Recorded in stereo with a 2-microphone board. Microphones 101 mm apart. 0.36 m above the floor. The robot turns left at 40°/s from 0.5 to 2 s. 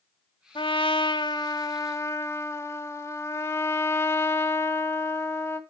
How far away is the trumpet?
About 1.6 m.